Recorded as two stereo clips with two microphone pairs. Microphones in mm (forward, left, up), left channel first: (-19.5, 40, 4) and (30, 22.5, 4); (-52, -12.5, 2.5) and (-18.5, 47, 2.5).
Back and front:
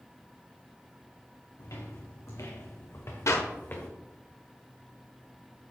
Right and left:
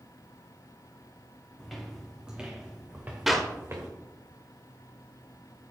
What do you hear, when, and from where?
1.6 s footsteps: 150° left, 2.5 m; by 3.9 s 105° left, 2 m
3.3 s a clap: 145° left, 1.2 m